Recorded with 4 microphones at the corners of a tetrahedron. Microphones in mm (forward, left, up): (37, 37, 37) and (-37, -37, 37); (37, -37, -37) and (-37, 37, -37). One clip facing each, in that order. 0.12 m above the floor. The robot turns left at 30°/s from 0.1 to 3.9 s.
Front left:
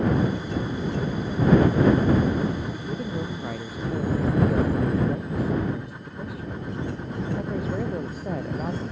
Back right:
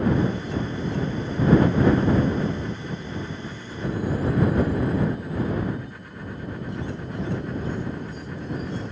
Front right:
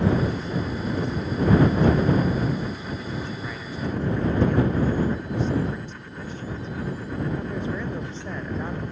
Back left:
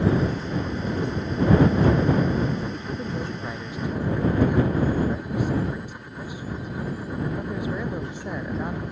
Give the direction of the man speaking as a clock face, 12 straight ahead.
9 o'clock.